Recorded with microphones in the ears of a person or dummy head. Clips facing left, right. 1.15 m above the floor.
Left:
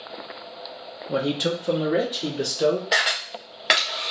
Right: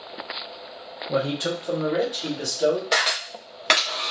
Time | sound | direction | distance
1.1 | a man speaking | 10° left (ahead or behind) | 0.5 m
2.9 | a camera shutter | 5° left (ahead or behind) | 0.9 m